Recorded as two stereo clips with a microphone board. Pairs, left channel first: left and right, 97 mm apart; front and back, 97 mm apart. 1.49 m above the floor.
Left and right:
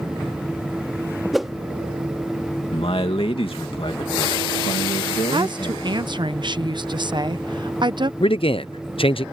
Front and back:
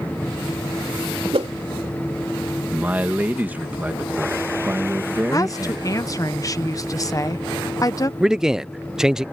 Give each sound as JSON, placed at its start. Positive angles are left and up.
{"t": 1.3, "sound": "a whoosh", "azimuth_deg": 180}
{"t": 2.7, "sound": "a man speaking", "azimuth_deg": 110}
{"t": 5.3, "sound": "a woman speaking", "azimuth_deg": -50}
{"t": 8.2, "sound": "a man speaking", "azimuth_deg": 95}